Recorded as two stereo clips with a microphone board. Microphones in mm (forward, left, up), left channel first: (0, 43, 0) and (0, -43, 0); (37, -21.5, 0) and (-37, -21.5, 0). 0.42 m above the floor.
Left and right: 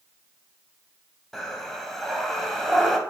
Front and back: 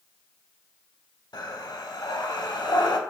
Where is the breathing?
5° left, 0.6 m.